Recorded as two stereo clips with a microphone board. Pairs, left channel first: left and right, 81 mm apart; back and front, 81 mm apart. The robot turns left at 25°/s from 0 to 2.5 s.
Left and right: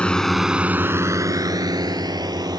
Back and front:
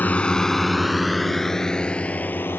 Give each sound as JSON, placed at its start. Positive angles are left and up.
{"t": 0.0, "sound": "a drone", "azimuth_deg": 145}